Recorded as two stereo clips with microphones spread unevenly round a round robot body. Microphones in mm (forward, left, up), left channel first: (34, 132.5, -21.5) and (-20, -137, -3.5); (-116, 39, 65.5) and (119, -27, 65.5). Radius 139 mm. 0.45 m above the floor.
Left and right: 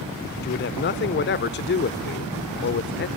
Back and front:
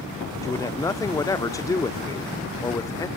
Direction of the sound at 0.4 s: 95° left.